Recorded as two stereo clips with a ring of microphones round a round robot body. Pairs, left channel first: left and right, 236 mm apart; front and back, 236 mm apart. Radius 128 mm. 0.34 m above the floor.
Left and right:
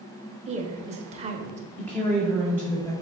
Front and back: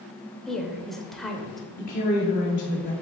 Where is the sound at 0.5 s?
85° right, 0.9 m.